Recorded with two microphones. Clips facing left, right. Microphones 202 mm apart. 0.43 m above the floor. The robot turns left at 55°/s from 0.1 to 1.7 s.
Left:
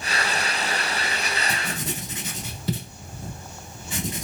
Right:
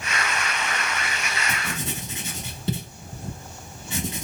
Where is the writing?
20° right (ahead or behind), 1.2 m; by 4.2 s 25° right (ahead or behind), 1.2 m.